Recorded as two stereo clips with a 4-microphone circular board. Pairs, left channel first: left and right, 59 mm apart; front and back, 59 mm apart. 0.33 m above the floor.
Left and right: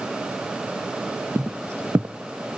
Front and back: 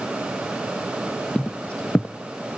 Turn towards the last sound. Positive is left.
turn(degrees=-65)